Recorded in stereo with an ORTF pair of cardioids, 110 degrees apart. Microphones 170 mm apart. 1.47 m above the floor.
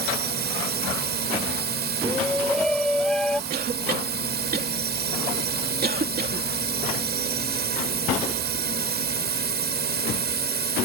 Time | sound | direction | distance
0.0 | a drone | 65° right | ?
2.0 | a shout | 5° left | ?
3.5 | a cough | 60° right | ?